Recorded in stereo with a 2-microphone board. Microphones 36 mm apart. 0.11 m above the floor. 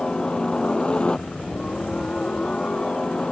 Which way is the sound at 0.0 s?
25° left (ahead or behind).